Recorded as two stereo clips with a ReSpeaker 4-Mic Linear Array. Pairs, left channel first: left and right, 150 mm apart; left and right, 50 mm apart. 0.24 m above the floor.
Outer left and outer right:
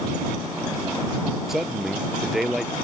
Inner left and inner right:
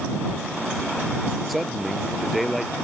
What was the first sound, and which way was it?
A man speaking, centre (ahead or behind).